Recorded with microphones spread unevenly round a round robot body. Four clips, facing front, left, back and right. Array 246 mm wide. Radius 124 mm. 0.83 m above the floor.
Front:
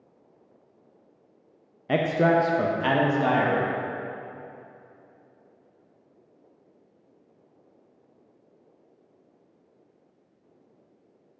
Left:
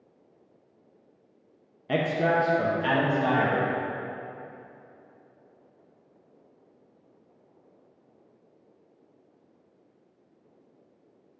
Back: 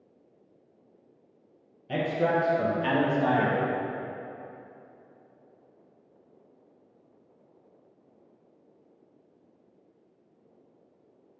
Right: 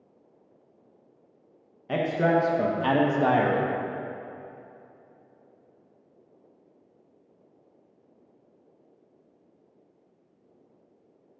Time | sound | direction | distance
1.9 | a man speaking | 30° left | 0.6 m